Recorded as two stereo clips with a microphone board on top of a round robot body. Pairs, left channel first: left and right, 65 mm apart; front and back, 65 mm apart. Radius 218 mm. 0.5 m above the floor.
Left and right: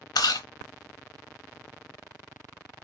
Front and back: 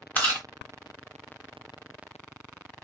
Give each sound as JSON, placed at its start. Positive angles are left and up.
{"t": 0.1, "sound": "chewing", "azimuth_deg": 65, "distance_m": 0.6}